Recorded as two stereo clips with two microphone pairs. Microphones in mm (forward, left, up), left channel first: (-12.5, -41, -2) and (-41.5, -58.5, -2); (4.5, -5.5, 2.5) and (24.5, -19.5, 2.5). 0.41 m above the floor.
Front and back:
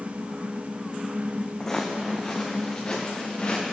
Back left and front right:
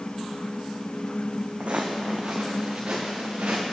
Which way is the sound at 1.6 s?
45° right.